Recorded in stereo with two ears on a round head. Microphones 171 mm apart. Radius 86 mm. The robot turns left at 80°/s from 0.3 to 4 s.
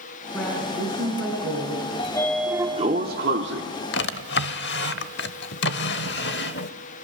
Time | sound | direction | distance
0.3 | a woman speaking | 10° left | 6 m
2.0 | a sliding door | 35° left | 1.7 m
3.9 | a drawer | 65° left (ahead or behind) | 0.8 m